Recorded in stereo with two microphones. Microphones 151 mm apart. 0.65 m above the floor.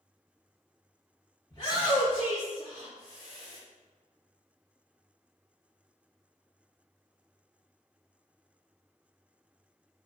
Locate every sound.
1.5 s a shout: 30° left (ahead or behind), 1.9 m; by 3.6 s 60° left (ahead or behind), 2.0 m